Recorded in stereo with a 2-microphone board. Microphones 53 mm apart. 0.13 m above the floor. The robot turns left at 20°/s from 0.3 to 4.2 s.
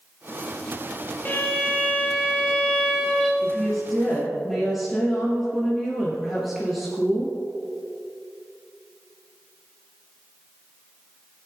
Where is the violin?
40° left, 2.5 m; by 3.3 s 5° right, 2.5 m.